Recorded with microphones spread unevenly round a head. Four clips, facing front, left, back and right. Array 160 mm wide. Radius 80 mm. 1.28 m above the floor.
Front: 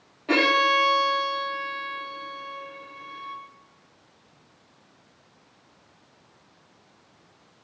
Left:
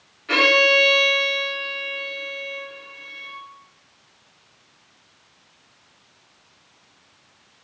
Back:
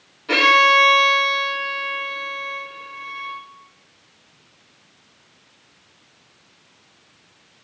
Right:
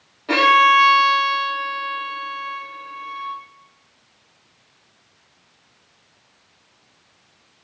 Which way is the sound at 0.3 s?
45° right.